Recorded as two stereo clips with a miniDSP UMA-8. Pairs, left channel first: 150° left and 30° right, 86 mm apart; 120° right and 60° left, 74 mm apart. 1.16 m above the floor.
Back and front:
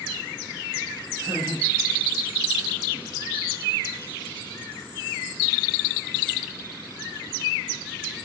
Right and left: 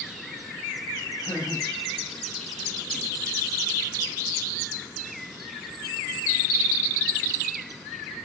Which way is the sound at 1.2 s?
85° right.